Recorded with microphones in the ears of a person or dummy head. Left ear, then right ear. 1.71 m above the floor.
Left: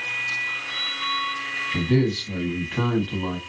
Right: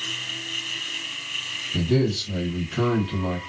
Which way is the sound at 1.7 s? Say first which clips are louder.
Right 2 dB; 20° left (ahead or behind).